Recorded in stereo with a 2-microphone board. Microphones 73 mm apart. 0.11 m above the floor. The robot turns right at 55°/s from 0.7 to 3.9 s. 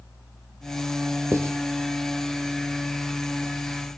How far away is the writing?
About 3 m.